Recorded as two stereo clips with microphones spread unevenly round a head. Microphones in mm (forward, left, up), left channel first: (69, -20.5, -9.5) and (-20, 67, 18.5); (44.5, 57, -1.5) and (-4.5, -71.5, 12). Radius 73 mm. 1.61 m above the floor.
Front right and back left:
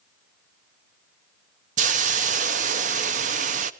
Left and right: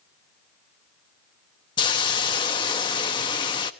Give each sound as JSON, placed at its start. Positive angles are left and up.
{"t": 1.8, "sound": "a hiss", "azimuth_deg": 130, "distance_m": 0.8}